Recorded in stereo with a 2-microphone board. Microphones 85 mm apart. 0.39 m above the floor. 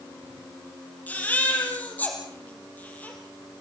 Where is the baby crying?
20° left (ahead or behind), 5.5 m.